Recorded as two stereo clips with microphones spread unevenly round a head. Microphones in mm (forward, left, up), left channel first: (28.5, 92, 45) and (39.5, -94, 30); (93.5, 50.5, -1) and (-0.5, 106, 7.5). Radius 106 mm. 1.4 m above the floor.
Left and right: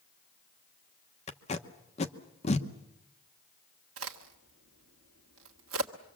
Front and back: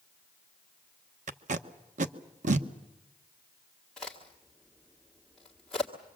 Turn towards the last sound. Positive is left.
turn(degrees=-120)